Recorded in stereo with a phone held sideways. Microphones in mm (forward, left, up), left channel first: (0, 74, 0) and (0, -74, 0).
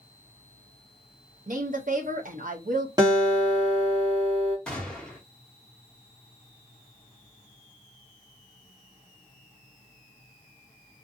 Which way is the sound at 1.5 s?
65° right (ahead or behind).